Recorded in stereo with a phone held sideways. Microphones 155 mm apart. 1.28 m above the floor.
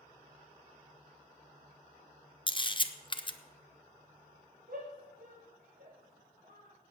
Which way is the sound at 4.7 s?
65° right (ahead or behind).